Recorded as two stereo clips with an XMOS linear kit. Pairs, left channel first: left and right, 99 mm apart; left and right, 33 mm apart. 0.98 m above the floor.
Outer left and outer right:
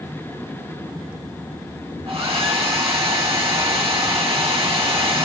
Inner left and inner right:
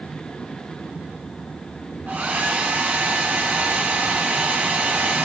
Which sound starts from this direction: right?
A hair dryer, at 2.1 s.